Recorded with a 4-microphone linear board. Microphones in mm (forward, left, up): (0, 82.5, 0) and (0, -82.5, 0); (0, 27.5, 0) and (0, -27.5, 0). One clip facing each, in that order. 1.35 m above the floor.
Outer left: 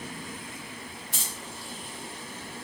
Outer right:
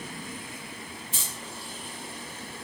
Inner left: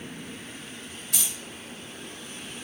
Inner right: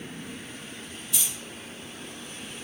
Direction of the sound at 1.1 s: 70° left (ahead or behind).